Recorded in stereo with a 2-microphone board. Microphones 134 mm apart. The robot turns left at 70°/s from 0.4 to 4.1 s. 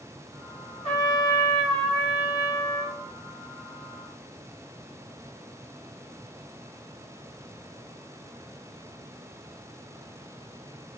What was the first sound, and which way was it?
A trumpet, 75° left.